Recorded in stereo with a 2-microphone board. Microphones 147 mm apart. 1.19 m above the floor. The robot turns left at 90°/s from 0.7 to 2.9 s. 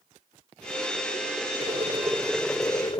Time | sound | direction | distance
1.6 | boiling | 110° right | ?